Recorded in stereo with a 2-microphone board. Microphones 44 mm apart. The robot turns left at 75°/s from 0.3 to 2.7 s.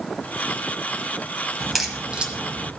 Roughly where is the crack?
Centre.